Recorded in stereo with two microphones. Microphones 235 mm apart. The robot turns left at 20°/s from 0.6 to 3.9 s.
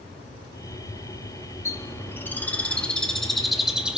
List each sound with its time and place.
1.6 s a bird: 10° left (ahead or behind), 0.9 m; by 4.0 s 5° right (ahead or behind), 0.9 m